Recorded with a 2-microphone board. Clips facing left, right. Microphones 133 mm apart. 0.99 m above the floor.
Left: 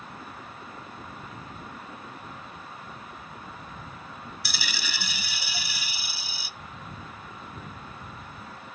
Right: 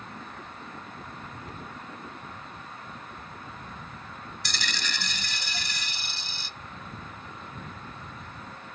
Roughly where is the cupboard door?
Right.